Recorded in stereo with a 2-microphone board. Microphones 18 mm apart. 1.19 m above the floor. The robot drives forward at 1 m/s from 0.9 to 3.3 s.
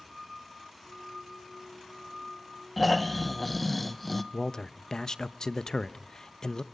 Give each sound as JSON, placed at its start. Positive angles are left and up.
{"t": 2.8, "sound": "snoring", "side_deg": 10, "distance_m": 1.4}
{"t": 4.3, "sound": "a man speaking", "side_deg": 45, "distance_m": 0.8}